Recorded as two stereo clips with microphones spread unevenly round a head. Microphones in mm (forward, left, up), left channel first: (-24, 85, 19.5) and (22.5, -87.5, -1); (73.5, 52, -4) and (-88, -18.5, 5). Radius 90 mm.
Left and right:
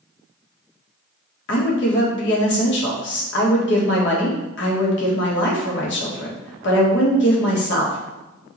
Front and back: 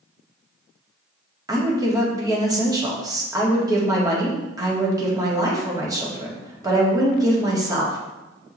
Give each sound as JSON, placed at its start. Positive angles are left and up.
{"t": 1.5, "sound": "a woman speaking", "azimuth_deg": 130, "distance_m": 1.9}